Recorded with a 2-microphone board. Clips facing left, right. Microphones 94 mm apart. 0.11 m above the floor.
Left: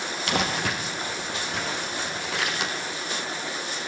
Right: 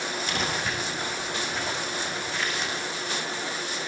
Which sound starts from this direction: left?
Crumpling, at 0.3 s.